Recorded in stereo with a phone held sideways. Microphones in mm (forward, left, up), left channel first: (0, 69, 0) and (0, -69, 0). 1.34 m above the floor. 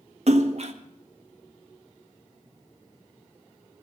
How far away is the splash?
About 1.4 m.